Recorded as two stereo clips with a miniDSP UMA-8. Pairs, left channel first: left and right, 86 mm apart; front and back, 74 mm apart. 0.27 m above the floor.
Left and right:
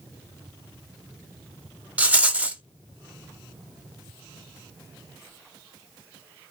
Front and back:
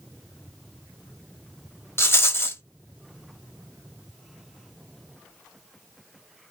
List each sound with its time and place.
2.0 s a rattle: 30° right, 0.5 m